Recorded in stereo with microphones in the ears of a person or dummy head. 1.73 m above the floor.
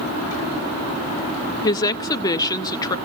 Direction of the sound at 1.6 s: 25° left (ahead or behind).